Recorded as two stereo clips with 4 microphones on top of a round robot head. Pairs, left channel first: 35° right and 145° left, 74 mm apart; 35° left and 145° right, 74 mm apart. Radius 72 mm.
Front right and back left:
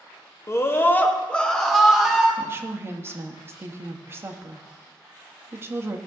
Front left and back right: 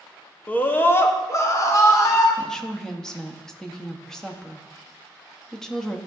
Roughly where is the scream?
Ahead right.